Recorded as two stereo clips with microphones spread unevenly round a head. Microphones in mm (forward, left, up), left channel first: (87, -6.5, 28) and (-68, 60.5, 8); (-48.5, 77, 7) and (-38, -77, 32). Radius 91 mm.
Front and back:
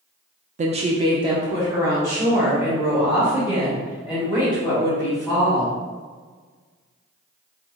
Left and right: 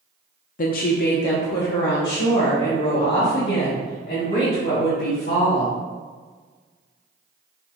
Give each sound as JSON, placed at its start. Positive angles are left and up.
{"t": 0.6, "sound": "a woman speaking", "azimuth_deg": 115, "distance_m": 0.5}